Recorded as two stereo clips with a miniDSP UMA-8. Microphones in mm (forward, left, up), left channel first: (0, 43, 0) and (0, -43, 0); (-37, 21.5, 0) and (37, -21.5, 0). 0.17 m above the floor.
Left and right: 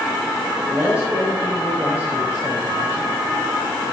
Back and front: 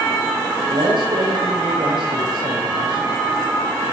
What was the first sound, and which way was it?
A man speaking, 20° right.